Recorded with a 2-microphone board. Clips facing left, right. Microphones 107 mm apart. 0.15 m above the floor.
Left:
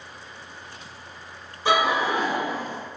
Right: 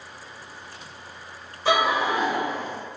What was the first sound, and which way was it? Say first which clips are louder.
Laughter: even; 20° left (ahead or behind).